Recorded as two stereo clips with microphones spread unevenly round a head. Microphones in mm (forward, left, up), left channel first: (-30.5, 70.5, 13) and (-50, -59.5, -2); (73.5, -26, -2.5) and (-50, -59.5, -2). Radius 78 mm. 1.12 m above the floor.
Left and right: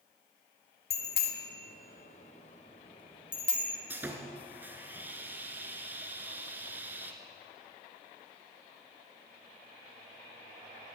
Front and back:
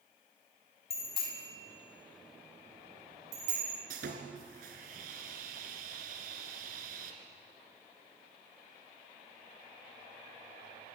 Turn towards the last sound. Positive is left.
turn(degrees=-175)